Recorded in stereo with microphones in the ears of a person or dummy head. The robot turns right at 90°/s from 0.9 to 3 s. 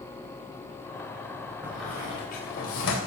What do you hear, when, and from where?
1.6 s a squeak: 15° right (ahead or behind), 3.5 m; by 3.0 s 65° left (ahead or behind), 3.5 m